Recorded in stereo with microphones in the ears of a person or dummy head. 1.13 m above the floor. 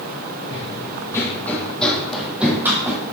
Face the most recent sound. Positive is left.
turn(degrees=-15)  # may be behind; listen again after turning